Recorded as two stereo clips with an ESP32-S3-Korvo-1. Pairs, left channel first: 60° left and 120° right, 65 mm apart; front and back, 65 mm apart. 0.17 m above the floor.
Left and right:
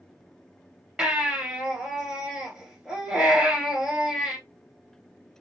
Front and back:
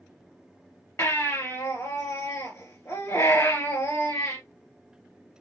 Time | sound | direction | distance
1.0 | a baby crying | 40° right | 3 m